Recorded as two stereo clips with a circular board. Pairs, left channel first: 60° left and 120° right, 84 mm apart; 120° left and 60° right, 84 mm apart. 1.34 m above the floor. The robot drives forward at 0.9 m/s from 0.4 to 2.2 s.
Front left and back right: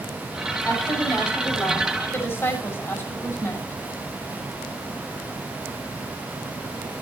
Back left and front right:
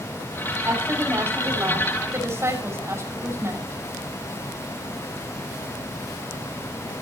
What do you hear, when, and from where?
0.6 s a woman speaking: straight ahead, 7.5 m